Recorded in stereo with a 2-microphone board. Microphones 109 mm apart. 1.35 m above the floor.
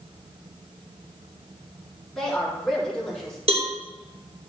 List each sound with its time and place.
2.1 s a woman speaking: 5° left (ahead or behind), 4 m
3.5 s a cowbell: 60° right (ahead or behind), 1.8 m